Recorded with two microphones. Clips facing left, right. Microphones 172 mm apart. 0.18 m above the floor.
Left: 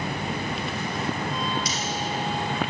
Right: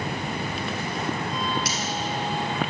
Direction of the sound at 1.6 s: 65° right (ahead or behind).